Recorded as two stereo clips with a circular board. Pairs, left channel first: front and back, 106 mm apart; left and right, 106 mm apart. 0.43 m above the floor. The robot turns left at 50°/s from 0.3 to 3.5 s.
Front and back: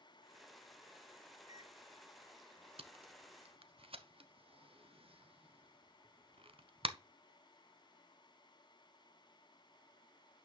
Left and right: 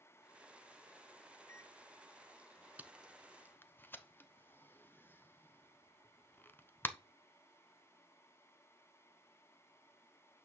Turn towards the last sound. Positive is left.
turn(degrees=160)